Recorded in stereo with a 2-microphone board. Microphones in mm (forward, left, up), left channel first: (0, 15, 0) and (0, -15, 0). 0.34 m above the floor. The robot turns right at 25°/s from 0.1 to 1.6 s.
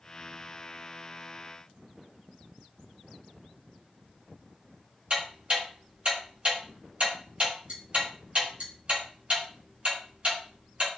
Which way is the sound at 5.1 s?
45° right (ahead or behind).